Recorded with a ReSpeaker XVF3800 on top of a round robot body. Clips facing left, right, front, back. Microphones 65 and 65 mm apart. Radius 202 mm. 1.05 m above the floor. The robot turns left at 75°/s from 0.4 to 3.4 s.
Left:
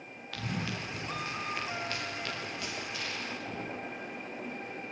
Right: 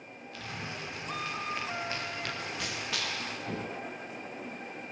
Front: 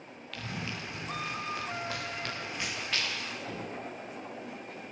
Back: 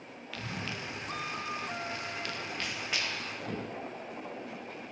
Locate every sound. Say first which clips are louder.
0.3 s running footsteps: left 4 dB, even; 95° left, 8.5 m; by 3.7 s 140° right, 10.5 m